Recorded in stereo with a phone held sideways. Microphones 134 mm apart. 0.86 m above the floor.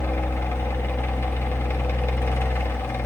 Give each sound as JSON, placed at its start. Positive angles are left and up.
{"t": 0.0, "sound": "a fan", "side_deg": 20, "distance_m": 1.2}